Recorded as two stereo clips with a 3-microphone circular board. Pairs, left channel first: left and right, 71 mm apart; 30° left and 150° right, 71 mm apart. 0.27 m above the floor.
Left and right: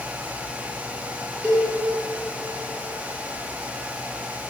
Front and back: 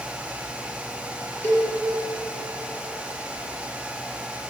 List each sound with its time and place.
1.4 s a cowbell: 30° right, 0.6 m